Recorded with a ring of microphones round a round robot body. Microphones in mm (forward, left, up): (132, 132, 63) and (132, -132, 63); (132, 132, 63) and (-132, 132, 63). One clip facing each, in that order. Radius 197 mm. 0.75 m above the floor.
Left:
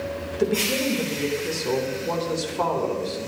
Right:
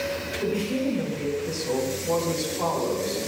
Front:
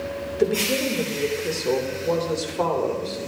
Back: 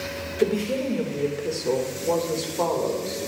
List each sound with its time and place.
0.4 s a woman speaking: 85° left, 3.5 m